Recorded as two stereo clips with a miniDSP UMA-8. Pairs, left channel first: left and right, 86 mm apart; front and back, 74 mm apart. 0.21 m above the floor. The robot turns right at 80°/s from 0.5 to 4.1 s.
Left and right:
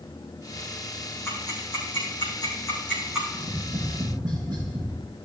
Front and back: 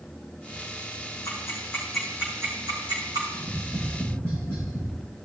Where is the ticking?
35° left, 5.5 m; by 3.2 s 170° right, 5.5 m.